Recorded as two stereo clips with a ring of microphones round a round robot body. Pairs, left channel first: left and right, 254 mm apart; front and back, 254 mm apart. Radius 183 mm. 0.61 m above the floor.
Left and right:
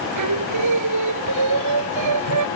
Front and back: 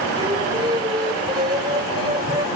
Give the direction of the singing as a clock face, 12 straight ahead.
3 o'clock.